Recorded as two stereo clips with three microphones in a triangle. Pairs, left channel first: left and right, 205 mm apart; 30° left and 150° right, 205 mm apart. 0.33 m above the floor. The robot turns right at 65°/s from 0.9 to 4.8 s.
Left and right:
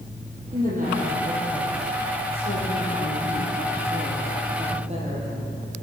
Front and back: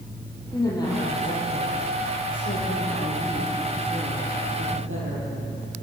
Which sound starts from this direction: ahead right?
A woman speaking, at 0.5 s.